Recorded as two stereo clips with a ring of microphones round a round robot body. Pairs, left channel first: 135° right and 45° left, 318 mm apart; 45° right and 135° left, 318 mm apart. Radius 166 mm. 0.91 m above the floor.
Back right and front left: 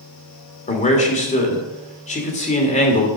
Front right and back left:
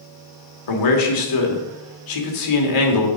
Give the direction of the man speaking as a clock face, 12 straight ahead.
2 o'clock.